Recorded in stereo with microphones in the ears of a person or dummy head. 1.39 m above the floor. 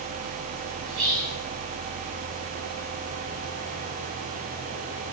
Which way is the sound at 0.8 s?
35° right (ahead or behind).